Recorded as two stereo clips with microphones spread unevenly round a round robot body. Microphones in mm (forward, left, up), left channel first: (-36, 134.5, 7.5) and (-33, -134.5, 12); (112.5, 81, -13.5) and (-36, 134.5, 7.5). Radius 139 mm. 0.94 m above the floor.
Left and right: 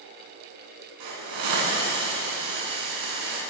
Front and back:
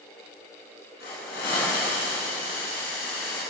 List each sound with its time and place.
1.0 s a hiss: 75° right, 8.5 m